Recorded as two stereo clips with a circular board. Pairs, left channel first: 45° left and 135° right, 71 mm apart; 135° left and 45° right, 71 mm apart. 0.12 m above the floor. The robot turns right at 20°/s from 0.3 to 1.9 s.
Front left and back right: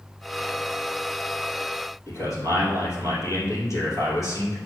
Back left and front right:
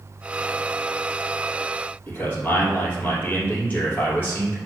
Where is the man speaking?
75° left, 3 m.